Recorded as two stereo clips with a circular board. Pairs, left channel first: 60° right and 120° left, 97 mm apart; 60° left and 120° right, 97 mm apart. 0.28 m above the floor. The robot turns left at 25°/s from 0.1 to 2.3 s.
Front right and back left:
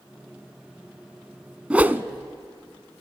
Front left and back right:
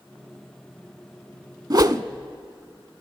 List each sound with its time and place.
1.7 s a whoosh: 165° right, 0.6 m; by 2.0 s 170° right, 0.6 m